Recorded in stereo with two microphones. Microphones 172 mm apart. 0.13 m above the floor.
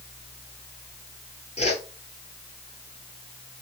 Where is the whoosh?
40° left (ahead or behind), 1.1 m.